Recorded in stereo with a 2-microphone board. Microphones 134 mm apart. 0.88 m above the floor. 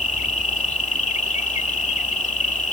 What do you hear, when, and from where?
0.0 s an insect: 60° left (ahead or behind)